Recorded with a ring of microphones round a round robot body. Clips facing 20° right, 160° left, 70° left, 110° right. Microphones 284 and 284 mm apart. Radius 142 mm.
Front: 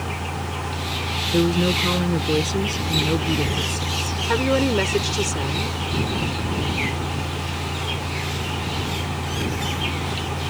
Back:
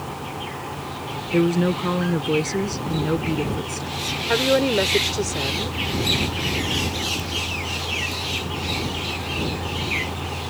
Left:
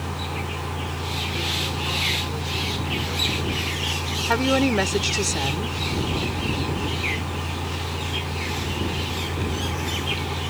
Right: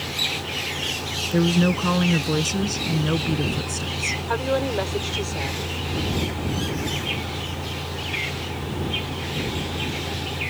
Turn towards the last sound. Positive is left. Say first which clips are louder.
# even, left 4 dB
turn(degrees=55)